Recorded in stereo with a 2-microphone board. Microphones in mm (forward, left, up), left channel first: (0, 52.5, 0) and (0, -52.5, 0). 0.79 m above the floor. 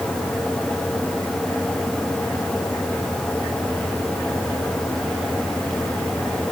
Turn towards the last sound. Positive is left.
No sound to turn to.